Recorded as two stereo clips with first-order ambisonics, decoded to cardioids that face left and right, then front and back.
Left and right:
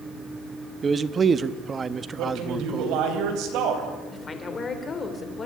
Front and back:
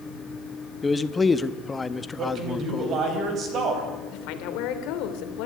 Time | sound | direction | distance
0.8 | a man speaking | 60° right | 0.6 m
2.2 | a man speaking | 125° right | 4 m
4.1 | a woman speaking | 20° left | 2.5 m